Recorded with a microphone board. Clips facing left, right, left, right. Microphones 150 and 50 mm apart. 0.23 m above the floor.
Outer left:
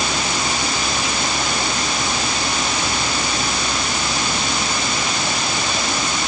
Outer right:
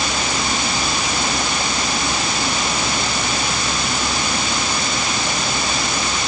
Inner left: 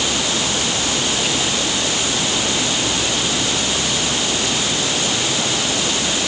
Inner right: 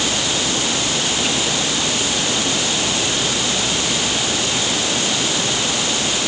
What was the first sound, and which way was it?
Only background noise.